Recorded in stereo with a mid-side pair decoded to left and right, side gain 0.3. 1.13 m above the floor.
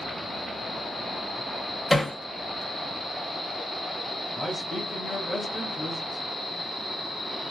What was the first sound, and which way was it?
Hammering, 10° left.